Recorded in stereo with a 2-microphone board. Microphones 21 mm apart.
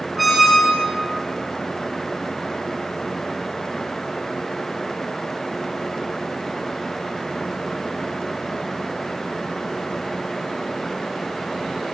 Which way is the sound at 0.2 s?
Centre (ahead or behind).